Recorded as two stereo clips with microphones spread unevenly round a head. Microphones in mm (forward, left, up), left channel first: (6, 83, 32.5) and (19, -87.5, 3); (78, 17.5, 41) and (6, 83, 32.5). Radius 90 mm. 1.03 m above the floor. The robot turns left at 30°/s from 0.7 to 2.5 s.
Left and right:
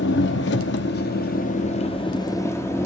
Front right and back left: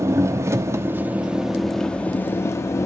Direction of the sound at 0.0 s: 75° left.